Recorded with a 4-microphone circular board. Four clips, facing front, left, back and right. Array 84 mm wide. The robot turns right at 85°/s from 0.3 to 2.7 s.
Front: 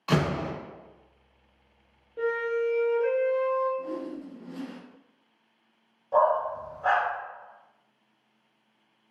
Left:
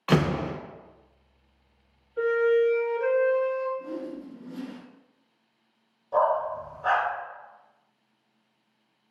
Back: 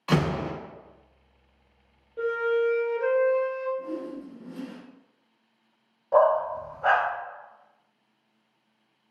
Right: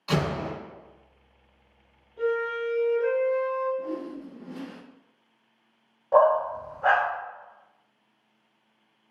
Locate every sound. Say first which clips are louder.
0.1 s a door slam: left 3 dB, back 1 dB; 100° left, 0.7 m; by 0.5 s 120° left, 0.7 m
2.2 s a flute: left 6 dB, back 3 dB; 85° left, 0.6 m; by 3.7 s 130° left, 0.6 m
3.8 s a whoosh: right 2 dB, even; 75° right, 0.5 m
6.1 s a dog barking: right 4 dB, back 3 dB; 115° right, 0.9 m